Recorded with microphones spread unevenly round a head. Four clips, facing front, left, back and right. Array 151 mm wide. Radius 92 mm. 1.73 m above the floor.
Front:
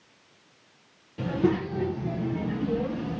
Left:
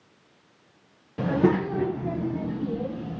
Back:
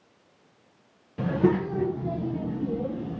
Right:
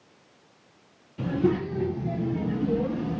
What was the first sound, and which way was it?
A child speaking, 135° left.